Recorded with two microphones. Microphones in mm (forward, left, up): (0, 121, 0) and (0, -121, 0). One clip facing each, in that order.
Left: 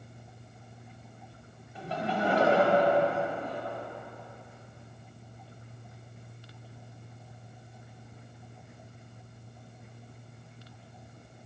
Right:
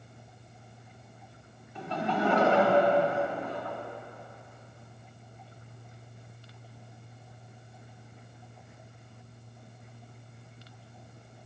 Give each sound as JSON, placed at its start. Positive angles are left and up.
{"t": 1.8, "sound": "laughter", "side_deg": 35, "distance_m": 1.9}